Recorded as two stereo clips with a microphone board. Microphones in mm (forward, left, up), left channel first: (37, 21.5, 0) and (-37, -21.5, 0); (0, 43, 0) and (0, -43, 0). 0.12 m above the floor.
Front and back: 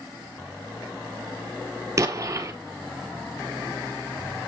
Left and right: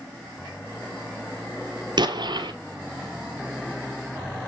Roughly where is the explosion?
Right.